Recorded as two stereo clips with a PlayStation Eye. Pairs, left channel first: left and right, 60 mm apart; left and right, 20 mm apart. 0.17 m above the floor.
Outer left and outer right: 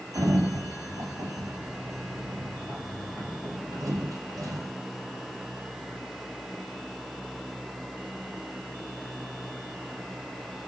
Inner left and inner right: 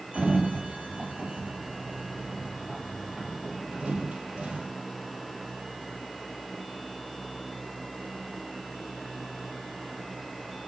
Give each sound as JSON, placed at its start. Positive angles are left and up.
{"t": 0.1, "sound": "a sliding door", "side_deg": -75, "distance_m": 2.0}